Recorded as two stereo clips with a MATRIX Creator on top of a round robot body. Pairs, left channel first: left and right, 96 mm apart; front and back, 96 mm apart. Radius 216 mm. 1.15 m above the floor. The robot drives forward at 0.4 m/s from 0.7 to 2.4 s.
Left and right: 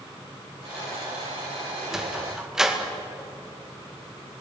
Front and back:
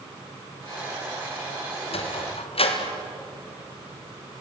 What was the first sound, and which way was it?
A sliding door, 5° right.